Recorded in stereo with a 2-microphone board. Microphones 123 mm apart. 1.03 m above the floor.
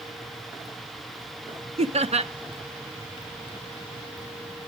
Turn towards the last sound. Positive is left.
turn(degrees=-65)  # may be behind; listen again after turning